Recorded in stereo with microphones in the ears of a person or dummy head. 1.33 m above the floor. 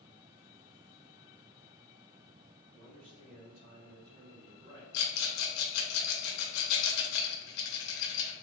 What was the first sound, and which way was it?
A man speaking, 70° right (ahead or behind).